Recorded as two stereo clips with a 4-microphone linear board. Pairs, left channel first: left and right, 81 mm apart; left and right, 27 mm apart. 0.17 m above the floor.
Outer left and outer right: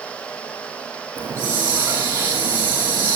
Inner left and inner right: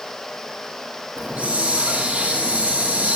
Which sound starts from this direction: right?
A hiss, at 1.2 s.